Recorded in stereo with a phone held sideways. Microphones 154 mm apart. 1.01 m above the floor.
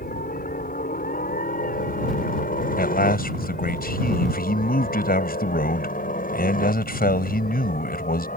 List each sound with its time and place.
0.0 s a helicopter: 65° left (ahead or behind); by 8.4 s 60° left (ahead or behind)
2.8 s a man speaking: 75° left (ahead or behind)